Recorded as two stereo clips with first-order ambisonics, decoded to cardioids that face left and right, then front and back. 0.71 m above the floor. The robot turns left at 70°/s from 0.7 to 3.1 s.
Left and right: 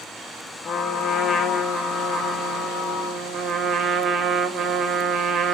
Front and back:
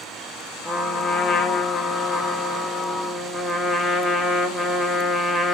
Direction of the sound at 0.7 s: 65° left.